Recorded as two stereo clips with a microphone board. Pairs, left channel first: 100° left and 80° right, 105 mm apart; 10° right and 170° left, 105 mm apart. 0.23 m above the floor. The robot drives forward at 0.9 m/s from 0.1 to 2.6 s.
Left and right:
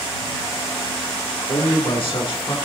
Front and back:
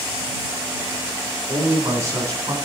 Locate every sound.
1.5 s a man speaking: 105° left, 3 m; by 2.5 s 125° left, 3.5 m